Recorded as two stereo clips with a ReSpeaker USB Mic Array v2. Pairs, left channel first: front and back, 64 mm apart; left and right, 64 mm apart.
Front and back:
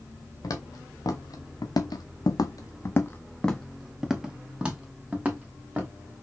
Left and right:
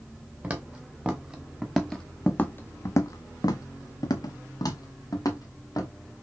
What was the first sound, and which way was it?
Footsteps, 25° right.